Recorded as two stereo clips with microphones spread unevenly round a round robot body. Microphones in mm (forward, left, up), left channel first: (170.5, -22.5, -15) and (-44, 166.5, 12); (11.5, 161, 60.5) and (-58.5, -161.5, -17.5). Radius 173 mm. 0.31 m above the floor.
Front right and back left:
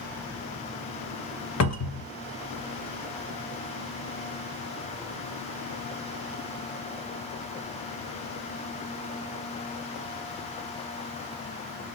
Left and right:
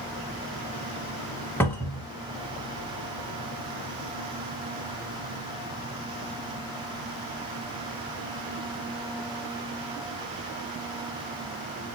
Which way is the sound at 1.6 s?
10° right.